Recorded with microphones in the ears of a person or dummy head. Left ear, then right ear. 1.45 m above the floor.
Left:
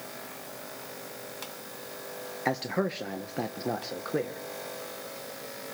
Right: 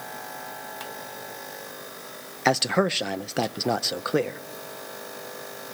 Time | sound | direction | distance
2.5 | a man speaking | 30° right (ahead or behind) | 0.7 m